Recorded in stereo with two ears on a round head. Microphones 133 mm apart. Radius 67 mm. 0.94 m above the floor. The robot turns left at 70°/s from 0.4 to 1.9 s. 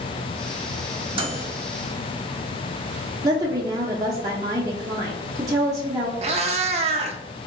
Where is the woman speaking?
25° right (ahead or behind), 0.8 m.